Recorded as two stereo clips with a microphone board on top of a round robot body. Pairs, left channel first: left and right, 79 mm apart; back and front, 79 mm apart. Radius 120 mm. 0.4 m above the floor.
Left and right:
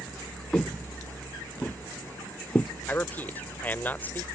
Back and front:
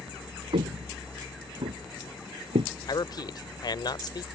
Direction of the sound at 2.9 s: 155° left.